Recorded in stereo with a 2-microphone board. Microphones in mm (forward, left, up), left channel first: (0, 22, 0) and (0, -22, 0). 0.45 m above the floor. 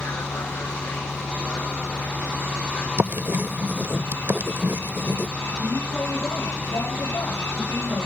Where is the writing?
55° right (ahead or behind).